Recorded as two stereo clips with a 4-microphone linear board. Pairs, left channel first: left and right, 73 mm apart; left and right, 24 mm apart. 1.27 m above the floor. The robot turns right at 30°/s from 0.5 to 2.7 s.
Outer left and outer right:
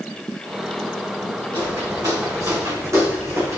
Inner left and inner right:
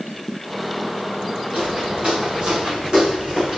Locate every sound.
1.5 s footsteps: 70° right (ahead or behind), 6.5 m; by 3.6 s 45° right (ahead or behind), 5 m